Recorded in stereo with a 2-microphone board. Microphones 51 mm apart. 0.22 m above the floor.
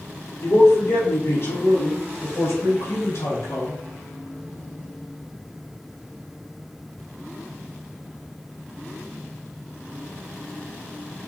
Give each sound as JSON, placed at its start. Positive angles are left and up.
{"t": 0.4, "sound": "a man speaking", "side_deg": 65, "distance_m": 2.5}